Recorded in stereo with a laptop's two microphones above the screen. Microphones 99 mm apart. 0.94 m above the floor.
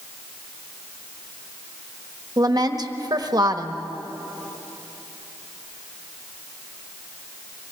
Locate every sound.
2.4 s a woman speaking: 40° right (ahead or behind), 1.2 m